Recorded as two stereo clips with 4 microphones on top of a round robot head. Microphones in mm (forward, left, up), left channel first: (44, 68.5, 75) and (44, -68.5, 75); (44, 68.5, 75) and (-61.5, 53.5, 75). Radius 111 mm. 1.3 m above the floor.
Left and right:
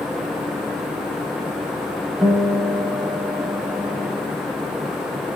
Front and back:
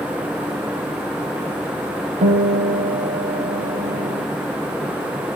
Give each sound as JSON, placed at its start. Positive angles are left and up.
{"t": 2.2, "sound": "a guitar", "azimuth_deg": 175, "distance_m": 1.3}